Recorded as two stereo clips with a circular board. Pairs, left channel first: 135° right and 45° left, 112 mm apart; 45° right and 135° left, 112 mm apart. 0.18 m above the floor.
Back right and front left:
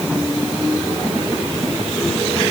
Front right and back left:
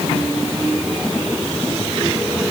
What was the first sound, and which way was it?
Only background noise.